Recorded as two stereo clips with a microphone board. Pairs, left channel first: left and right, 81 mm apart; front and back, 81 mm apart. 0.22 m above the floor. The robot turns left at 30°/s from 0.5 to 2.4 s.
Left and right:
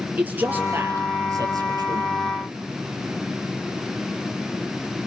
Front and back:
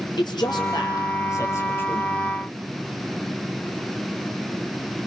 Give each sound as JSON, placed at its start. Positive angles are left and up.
{"t": 0.2, "sound": "a man speaking", "azimuth_deg": -20, "distance_m": 5.0}